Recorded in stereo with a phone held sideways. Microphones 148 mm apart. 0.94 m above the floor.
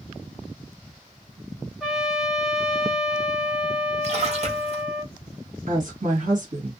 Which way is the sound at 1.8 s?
5° right (ahead or behind).